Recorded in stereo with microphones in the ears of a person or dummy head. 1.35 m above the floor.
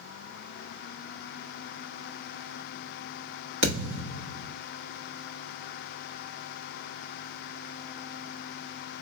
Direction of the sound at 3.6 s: 65° right (ahead or behind).